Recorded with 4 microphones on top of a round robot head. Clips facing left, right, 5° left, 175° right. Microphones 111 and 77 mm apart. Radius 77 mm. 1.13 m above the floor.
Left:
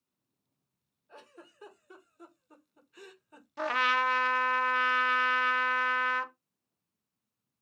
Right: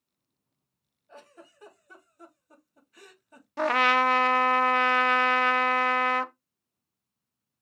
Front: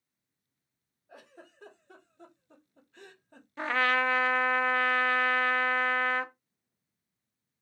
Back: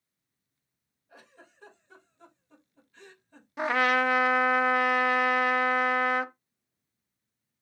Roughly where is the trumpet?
Right.